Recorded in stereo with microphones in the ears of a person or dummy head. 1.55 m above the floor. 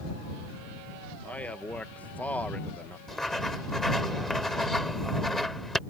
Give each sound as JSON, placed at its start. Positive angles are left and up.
{"t": 1.2, "sound": "a man speaking", "side_deg": 10}
{"t": 3.1, "sound": "writing", "side_deg": 0}